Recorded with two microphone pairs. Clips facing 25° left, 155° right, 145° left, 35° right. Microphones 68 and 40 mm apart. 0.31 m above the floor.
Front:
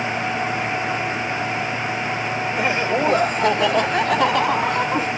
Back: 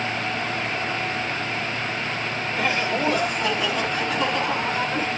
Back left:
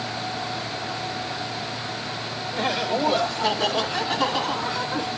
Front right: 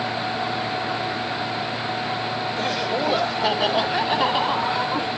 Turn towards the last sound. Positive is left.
turn(degrees=20)